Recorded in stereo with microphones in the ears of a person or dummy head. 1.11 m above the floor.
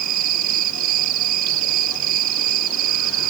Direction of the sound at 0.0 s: 50° right (ahead or behind).